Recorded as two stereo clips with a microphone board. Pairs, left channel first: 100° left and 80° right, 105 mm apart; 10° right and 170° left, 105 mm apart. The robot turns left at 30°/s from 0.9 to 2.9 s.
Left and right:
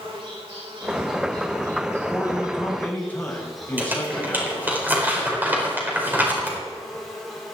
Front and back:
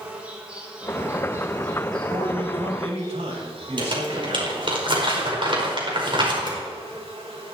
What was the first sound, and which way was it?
An insect, 110° right.